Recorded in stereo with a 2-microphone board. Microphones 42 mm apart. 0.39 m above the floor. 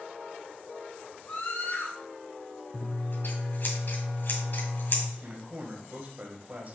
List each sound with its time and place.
1.3 s a scream: 50° left (ahead or behind), 3 m
2.7 s scissors: 55° left (ahead or behind), 1.7 m
5.2 s a man speaking: 40° right (ahead or behind), 1.9 m